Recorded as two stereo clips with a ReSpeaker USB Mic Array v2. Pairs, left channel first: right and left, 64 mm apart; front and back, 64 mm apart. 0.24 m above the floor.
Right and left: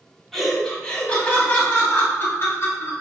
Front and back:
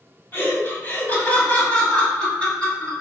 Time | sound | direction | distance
0.3 | laughter | 10° right | 1.6 m